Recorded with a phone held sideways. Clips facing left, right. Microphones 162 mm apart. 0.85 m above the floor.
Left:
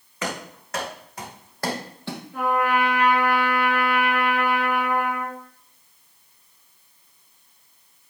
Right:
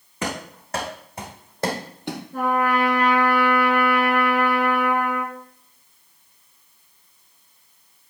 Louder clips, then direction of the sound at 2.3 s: Right 1 dB; 40° right (ahead or behind).